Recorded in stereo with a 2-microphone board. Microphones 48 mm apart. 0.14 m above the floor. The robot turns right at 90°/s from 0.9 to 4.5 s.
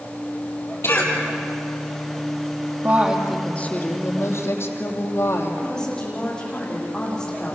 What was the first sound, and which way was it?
A cough, 70° left (ahead or behind).